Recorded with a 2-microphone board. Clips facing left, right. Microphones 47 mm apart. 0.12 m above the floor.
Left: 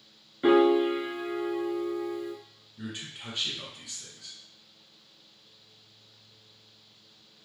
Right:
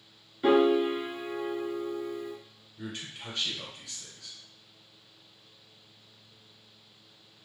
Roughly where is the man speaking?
Left.